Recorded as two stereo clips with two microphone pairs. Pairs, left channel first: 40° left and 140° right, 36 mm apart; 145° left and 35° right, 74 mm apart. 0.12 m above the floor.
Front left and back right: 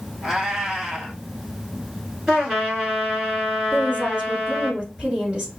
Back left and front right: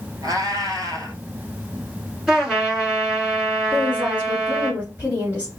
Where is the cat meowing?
60° right, 1.5 m.